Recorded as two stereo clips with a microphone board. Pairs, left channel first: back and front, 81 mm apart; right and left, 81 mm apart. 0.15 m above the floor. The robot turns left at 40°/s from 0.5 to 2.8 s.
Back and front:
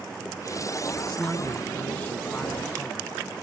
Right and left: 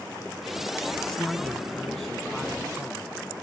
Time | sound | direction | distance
1.1 | a man speaking | 125° right | 1.7 m